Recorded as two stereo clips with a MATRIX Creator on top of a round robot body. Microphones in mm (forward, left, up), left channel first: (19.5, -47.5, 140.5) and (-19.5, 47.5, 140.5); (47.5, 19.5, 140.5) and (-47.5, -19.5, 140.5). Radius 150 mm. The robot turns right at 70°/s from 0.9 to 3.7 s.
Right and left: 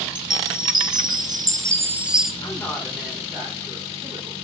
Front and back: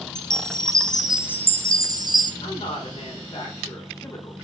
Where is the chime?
105° left, 1.1 m; by 2.3 s 155° right, 1.1 m.